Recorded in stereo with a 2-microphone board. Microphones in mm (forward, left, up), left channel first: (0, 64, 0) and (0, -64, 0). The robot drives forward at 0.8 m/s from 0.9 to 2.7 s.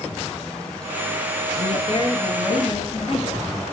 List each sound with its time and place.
1.6 s a woman speaking: 50° left (ahead or behind), 9.5 m; by 3.4 s 45° left (ahead or behind), 10 m